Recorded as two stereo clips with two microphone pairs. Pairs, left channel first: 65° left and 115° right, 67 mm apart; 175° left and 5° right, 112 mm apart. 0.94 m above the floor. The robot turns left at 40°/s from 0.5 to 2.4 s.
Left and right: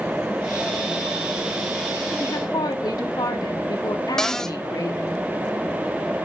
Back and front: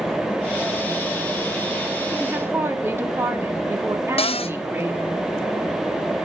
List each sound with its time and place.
2.2 s a woman speaking: 75° left, 2 m; by 5.2 s 65° left, 2 m
4.2 s a cupboard door: 145° left, 0.6 m